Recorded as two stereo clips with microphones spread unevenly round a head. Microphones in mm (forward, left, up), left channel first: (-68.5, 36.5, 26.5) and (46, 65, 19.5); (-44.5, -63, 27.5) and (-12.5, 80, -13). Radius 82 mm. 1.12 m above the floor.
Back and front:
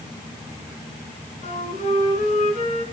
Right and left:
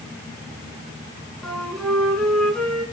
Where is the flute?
175° left, 6.5 m.